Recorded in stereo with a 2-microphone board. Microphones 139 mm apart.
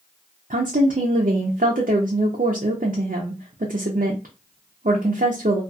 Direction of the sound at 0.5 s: 85° right.